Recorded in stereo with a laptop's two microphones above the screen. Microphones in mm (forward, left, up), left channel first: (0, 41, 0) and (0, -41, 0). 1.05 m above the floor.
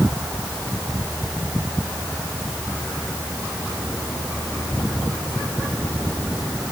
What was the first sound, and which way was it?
Only background noise.